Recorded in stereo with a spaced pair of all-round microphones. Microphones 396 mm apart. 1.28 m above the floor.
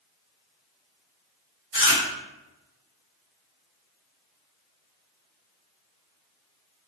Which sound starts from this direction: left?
Chewing, at 1.7 s.